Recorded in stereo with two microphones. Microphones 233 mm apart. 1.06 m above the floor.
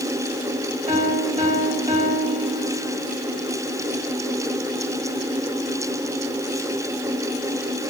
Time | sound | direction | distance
0.9 | a piano | 30° right (ahead or behind) | 6 m